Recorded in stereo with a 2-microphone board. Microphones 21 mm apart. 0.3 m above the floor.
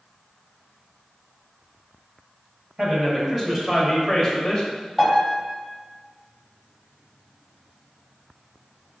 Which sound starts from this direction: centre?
A piano, at 5.0 s.